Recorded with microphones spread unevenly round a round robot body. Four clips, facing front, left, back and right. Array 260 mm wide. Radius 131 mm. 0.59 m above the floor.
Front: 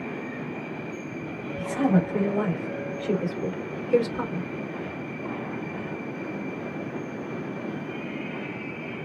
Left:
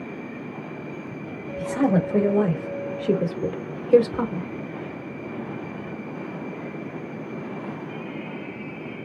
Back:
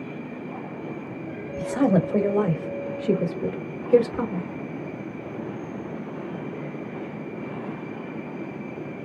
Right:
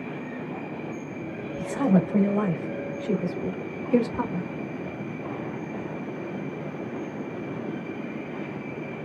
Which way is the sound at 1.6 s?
155° left.